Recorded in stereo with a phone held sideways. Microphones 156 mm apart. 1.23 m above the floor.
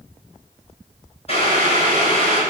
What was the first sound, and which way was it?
Boiling, 45° left (ahead or behind).